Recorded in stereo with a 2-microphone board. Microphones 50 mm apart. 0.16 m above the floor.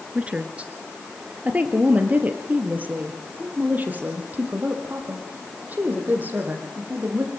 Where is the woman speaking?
25° right (ahead or behind), 2 m; by 7.3 s 40° right (ahead or behind), 7 m.